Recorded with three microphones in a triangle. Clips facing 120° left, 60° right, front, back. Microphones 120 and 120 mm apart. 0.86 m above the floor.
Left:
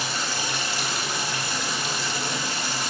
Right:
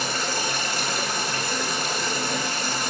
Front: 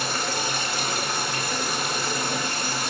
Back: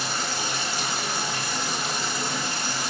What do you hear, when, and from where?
0.0 s running water: 20° right, 2.0 m